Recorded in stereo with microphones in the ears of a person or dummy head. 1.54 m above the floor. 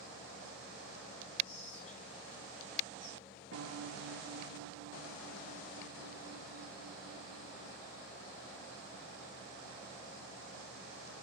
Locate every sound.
1.4 s whispering: 35° left (ahead or behind), 1.2 m
3.5 s a piano: 60° right (ahead or behind), 1.2 m